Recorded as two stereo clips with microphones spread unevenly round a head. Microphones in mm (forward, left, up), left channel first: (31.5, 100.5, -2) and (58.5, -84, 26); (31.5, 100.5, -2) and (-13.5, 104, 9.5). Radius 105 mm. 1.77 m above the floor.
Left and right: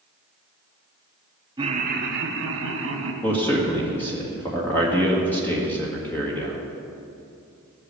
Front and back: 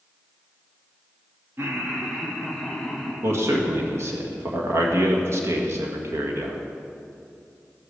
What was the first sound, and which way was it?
Laughter, 150° right.